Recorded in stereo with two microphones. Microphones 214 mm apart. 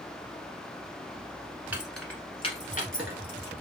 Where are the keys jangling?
10° right (ahead or behind), 1.2 m; by 3.5 s 65° left (ahead or behind), 1.7 m.